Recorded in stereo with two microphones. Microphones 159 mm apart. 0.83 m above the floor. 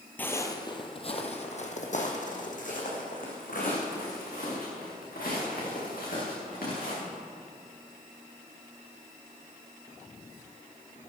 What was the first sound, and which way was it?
Footsteps, 10° left (ahead or behind).